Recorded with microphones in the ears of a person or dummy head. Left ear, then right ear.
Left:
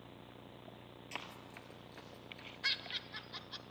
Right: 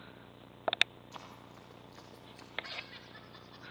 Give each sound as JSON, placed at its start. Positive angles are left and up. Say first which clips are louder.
{"t": 1.1, "sound": "running footsteps", "louder": "left 3 dB", "side_deg": 40, "distance_m": 2.0}
{"t": 2.6, "sound": "laughter", "louder": "left 7 dB", "side_deg": 40, "distance_m": 2.5}